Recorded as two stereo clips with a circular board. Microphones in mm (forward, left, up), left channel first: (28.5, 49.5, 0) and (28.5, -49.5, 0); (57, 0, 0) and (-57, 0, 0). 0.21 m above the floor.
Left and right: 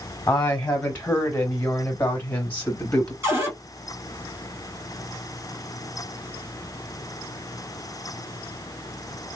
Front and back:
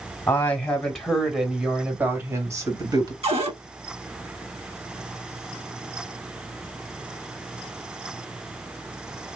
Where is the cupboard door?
155° right, 1.7 m.